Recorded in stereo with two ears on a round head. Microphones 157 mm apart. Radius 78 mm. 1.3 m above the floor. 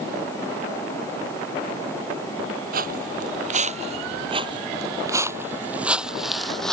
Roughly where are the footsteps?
Right.